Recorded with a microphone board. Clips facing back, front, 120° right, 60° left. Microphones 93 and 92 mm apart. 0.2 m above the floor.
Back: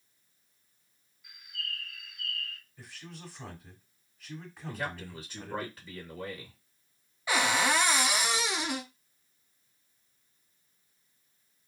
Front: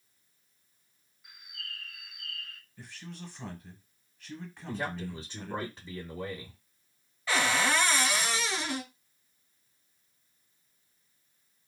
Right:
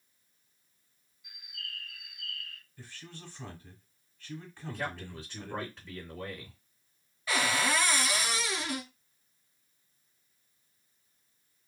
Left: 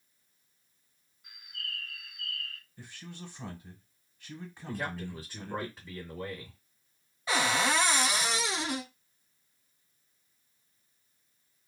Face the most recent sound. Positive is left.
turn(degrees=115)